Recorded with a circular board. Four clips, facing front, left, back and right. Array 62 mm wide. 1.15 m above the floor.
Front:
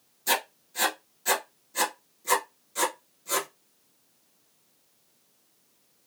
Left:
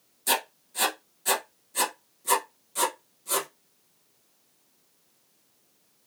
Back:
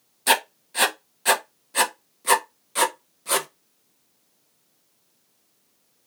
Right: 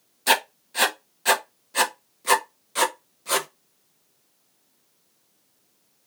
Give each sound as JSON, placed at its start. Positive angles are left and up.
{"t": 0.3, "sound": "writing", "azimuth_deg": -135, "distance_m": 0.5}